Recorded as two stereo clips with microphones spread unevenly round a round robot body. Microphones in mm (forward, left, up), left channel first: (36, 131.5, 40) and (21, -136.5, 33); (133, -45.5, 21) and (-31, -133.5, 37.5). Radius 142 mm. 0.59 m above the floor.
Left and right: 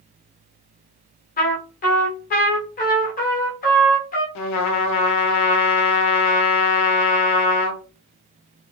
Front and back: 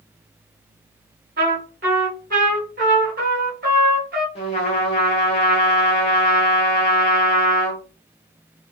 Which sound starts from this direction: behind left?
A trumpet, at 1.4 s.